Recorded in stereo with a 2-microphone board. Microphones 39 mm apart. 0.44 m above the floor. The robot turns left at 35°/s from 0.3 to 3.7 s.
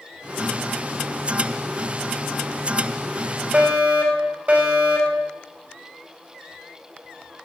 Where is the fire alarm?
35° right (ahead or behind), 4.5 m; by 5.3 s 40° right (ahead or behind), 4.5 m.